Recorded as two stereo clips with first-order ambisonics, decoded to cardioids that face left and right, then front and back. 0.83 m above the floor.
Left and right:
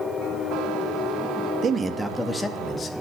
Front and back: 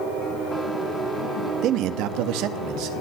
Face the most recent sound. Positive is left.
turn(degrees=150)